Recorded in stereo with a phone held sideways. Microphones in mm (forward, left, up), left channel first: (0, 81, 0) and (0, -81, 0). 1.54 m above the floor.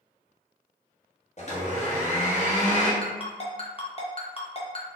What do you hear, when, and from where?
1.4 s a blender: 45° left (ahead or behind), 1.2 m
3.0 s a ringtone: 35° left (ahead or behind), 0.8 m